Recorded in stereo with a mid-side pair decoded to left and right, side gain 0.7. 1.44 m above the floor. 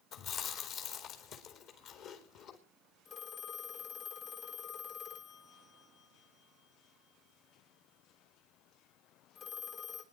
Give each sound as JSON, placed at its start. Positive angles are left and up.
{"t": 0.1, "sound": "chewing", "azimuth_deg": 55, "distance_m": 4.5}
{"t": 3.0, "sound": "a phone ringing", "azimuth_deg": 55, "distance_m": 3.5}